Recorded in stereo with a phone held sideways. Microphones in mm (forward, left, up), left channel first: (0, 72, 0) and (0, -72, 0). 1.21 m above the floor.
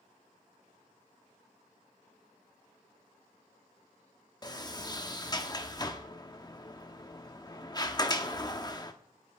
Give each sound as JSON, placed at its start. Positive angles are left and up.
{"t": 4.4, "sound": "a sliding door", "side_deg": 30, "distance_m": 1.2}